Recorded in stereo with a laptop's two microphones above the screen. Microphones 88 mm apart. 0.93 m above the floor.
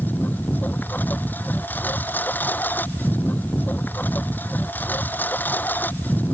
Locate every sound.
0.0 s a lawn mower: 20° left (ahead or behind)